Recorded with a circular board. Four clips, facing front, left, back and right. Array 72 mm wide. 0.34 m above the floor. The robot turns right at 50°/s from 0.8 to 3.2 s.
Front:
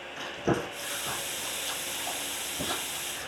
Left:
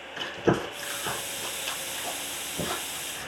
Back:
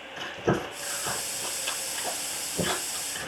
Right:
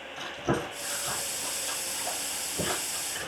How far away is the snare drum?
No snare drum in this recording.